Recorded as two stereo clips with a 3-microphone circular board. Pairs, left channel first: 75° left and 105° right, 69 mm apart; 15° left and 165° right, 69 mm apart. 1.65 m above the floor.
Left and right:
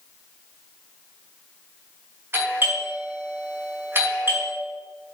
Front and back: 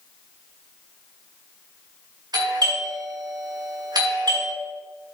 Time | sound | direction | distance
2.3 | a doorbell | 160° right | 4 m